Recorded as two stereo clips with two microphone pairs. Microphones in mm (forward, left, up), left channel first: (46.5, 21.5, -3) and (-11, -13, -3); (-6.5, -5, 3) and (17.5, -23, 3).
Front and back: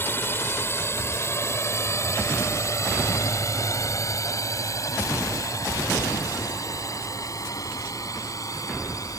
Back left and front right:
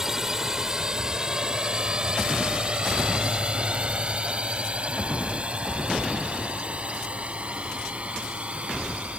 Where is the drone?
25° left; by 9.2 s 5° left.